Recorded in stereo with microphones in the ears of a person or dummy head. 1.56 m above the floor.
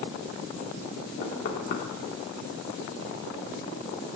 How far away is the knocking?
About 2.5 m.